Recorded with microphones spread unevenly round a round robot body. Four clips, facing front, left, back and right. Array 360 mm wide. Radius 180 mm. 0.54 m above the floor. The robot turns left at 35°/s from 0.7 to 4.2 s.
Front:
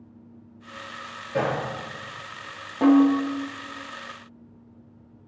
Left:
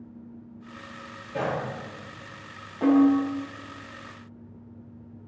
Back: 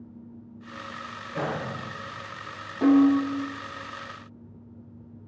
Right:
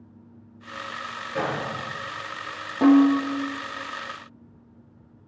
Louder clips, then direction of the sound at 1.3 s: Right 1 dB, front 5 dB; 15° left.